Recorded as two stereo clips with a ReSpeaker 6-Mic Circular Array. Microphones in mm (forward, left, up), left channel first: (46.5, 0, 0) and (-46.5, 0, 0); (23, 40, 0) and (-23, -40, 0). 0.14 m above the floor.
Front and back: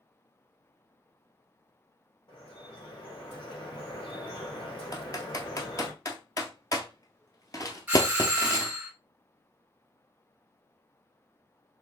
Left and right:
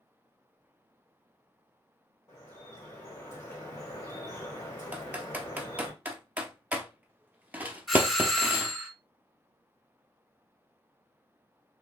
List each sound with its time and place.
2.3 s dripping: 5° left, 4 m
4.9 s typing on a keyboard: 50° right, 1.1 m
7.9 s a doorbell: 145° left, 1.6 m